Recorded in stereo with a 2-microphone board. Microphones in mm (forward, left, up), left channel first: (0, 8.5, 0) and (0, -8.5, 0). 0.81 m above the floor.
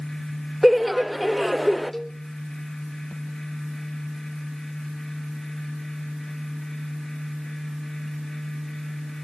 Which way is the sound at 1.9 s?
25° left (ahead or behind).